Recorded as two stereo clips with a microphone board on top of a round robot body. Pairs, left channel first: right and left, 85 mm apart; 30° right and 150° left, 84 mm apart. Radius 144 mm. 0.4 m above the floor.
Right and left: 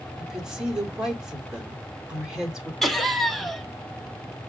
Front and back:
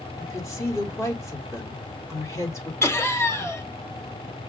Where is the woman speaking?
10° left, 1.9 m.